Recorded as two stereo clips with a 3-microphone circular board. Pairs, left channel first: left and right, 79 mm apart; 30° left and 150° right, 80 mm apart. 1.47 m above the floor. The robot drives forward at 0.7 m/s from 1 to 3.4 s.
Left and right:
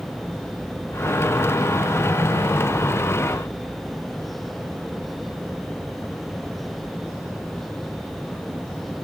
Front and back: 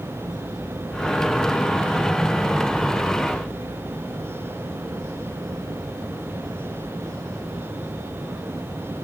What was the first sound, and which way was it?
Only background noise.